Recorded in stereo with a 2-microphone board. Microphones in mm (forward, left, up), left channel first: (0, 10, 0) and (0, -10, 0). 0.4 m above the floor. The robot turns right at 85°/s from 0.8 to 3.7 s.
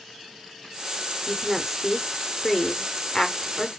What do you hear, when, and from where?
1.3 s a woman speaking: 20° right (ahead or behind), 0.8 m; by 3.7 s 15° left (ahead or behind), 0.8 m